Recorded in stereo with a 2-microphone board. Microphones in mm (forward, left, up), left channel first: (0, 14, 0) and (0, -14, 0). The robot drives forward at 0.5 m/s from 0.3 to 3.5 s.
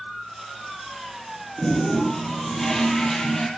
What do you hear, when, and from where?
1.6 s a toilet flushing: 20° left (ahead or behind), 4 m; by 3.5 s 15° left (ahead or behind), 5 m